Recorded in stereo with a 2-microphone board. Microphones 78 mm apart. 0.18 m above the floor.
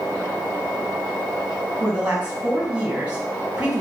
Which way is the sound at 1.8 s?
15° right (ahead or behind).